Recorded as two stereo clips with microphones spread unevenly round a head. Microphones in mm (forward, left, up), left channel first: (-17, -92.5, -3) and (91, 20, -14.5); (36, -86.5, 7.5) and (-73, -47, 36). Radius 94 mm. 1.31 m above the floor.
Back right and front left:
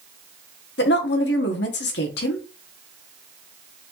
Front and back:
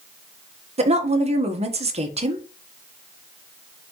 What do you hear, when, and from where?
0.8 s a woman speaking: 165° right, 1.2 m